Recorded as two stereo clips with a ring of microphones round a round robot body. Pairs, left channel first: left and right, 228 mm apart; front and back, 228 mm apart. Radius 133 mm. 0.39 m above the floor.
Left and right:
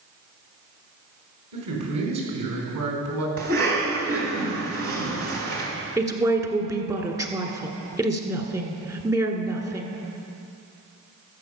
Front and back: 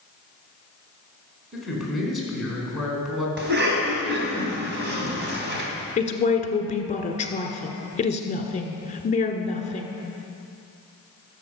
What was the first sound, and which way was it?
A man speaking, 90° right.